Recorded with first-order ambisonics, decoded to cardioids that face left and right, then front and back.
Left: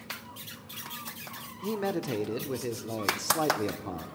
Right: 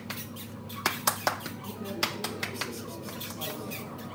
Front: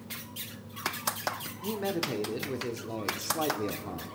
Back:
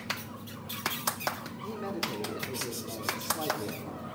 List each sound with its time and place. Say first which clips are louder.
1.6 s a man speaking: left 3 dB, front 3 dB; 70° left, 1.2 m